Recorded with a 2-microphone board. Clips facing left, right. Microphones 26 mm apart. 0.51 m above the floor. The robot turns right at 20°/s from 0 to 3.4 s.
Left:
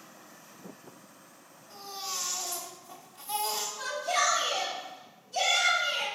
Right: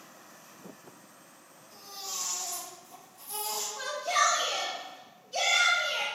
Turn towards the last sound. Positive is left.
turn(degrees=-50)  # may be behind; listen again after turning